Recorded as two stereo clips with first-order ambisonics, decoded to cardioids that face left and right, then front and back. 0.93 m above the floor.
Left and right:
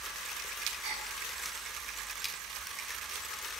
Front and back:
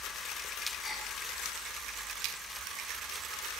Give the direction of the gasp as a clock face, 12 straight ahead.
3 o'clock.